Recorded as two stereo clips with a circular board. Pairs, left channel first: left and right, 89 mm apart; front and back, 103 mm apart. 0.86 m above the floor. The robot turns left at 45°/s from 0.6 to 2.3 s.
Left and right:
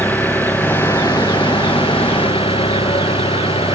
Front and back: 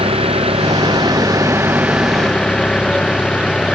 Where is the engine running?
160° left; by 3.8 s 80° left.